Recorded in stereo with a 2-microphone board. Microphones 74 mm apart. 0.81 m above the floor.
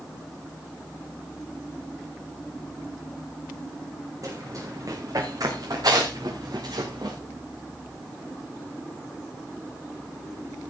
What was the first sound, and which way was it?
Running footsteps, 50° right (ahead or behind).